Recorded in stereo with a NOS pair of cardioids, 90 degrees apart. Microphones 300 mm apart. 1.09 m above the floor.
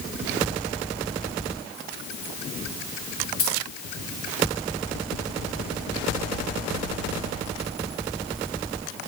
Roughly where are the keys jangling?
Ahead left.